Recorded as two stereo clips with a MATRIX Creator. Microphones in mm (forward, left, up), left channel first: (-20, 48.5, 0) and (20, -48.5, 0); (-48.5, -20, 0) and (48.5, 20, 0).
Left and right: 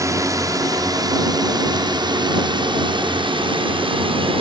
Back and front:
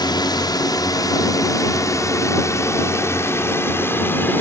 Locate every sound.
0.0 s a drone: 120° right; by 4.4 s 90° right